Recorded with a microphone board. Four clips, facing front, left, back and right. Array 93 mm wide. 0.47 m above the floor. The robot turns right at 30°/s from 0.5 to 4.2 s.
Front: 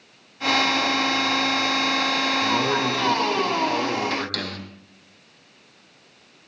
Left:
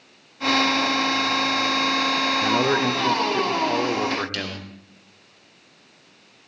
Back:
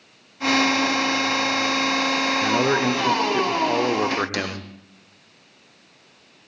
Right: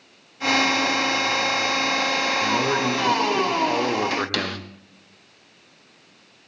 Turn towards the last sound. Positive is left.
turn(degrees=-105)